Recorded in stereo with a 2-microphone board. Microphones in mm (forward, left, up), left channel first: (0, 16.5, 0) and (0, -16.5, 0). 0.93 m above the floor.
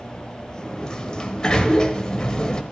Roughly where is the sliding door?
Left.